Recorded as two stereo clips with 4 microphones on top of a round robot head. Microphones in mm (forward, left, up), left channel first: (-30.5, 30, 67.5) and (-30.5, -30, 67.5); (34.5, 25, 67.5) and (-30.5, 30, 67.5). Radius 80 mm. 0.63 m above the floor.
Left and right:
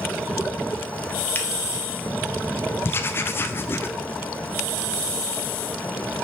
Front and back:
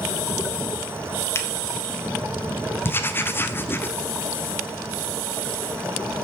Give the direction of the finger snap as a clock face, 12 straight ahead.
11 o'clock.